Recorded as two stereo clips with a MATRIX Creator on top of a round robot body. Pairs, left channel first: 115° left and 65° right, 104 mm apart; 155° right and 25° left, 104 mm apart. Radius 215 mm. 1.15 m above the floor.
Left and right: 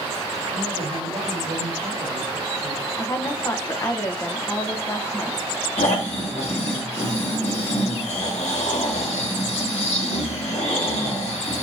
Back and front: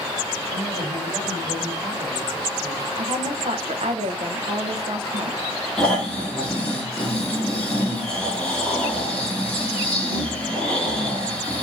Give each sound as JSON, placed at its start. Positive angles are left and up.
{"t": 0.5, "sound": "a man speaking", "azimuth_deg": -35, "distance_m": 3.0}
{"t": 3.0, "sound": "a woman speaking", "azimuth_deg": 45, "distance_m": 0.9}
{"t": 5.8, "sound": "snoring", "azimuth_deg": 120, "distance_m": 1.5}